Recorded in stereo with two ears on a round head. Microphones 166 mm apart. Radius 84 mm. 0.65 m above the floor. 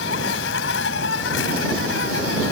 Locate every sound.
0.0 s an insect: 70° left (ahead or behind)